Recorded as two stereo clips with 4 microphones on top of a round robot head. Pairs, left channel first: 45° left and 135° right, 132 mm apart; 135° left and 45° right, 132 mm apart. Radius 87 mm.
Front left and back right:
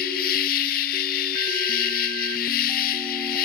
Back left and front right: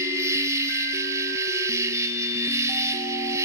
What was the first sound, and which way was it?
An insect, 25° left.